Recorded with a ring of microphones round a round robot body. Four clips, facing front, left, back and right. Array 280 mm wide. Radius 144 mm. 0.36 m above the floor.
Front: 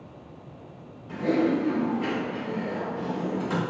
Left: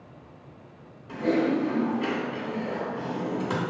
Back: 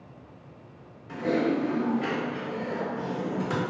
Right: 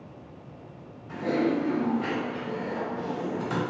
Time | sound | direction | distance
1.1 | typing on a keyboard | 90° left | 1.7 m